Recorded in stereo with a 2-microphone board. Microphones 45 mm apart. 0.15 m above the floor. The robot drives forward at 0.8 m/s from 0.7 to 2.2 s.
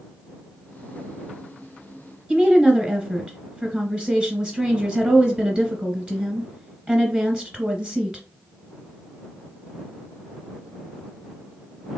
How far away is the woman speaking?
About 1.1 m.